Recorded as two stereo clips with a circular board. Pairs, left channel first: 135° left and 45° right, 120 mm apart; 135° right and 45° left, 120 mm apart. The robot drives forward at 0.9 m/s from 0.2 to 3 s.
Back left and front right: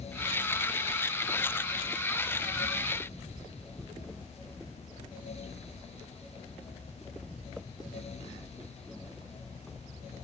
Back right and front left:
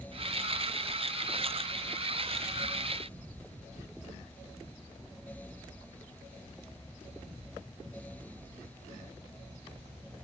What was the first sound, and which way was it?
Only background noise.